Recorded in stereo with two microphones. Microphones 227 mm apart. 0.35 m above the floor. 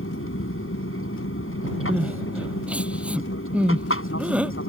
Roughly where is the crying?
Centre.